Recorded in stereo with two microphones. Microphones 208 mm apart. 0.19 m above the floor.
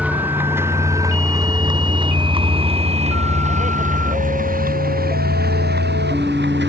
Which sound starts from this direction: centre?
A vehicle, at 0.0 s.